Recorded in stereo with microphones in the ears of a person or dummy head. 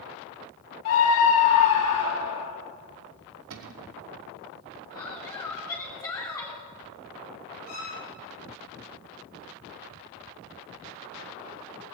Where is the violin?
70° left (ahead or behind), 6.5 m.